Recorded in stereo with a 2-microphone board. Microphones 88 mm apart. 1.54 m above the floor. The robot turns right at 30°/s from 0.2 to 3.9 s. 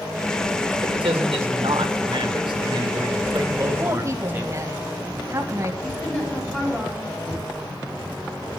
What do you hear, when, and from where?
0.8 s a man speaking: 115° right, 2 m; by 4.6 s 25° right, 2 m
3.8 s a woman speaking: 30° right (ahead or behind), 2.5 m; by 5.7 s 35° right (ahead or behind), 2.5 m
5.8 s a woman speaking: 15° left (ahead or behind), 6 m
7.3 s knocking: 60° left (ahead or behind), 5 m